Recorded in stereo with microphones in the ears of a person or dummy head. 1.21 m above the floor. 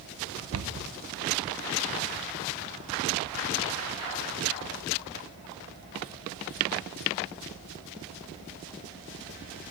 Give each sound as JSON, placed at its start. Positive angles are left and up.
{"t": 0.5, "sound": "a cupboard door", "side_deg": -70, "distance_m": 0.9}